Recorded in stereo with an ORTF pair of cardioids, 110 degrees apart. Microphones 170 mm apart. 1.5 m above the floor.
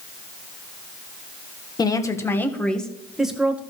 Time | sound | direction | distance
1.8 | a woman speaking | 25° left | 1.5 m